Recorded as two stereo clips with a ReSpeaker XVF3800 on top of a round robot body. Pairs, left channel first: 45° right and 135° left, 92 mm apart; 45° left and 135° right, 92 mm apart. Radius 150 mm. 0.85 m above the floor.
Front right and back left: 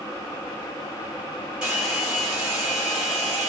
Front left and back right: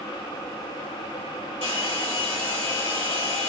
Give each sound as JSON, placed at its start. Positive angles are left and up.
{"t": 1.6, "sound": "a hair dryer", "azimuth_deg": 50, "distance_m": 3.5}